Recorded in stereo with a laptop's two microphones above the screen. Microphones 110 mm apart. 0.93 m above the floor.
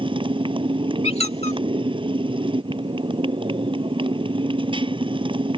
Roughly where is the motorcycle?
Right.